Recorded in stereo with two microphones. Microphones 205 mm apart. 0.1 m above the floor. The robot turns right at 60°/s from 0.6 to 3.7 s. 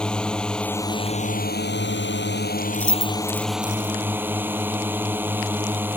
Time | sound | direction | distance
0.0 | a drone | 5° left | ?
2.7 | keys jangling | 10° left (ahead or behind) | ?